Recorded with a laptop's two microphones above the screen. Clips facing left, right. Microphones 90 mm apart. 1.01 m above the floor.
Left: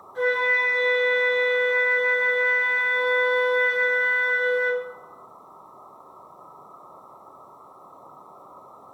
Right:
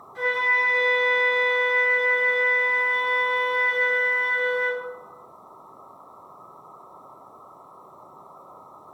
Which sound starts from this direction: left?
A flute, at 0.1 s.